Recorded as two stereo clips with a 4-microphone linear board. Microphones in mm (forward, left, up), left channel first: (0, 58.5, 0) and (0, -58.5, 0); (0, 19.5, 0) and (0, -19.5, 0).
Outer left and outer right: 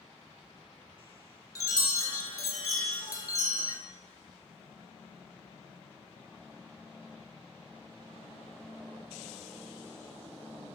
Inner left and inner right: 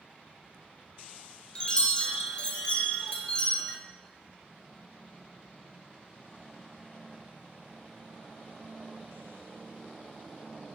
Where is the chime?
30° left (ahead or behind), 0.7 m.